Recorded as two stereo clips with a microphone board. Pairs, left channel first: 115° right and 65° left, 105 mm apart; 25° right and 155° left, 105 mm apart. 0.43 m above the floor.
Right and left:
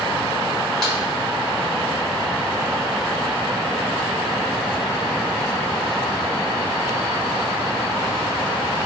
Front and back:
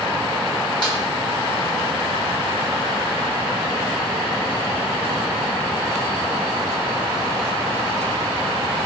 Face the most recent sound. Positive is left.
turn(degrees=-30)